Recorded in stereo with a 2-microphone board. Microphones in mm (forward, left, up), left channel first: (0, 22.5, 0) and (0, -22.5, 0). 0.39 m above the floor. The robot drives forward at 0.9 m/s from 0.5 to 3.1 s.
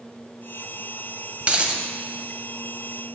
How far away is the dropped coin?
About 0.7 m.